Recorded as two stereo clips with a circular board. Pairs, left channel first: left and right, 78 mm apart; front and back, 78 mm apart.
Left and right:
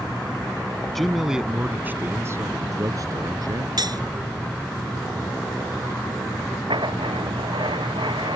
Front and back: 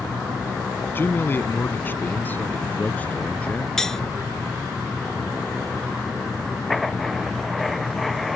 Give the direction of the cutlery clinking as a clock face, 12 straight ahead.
3 o'clock.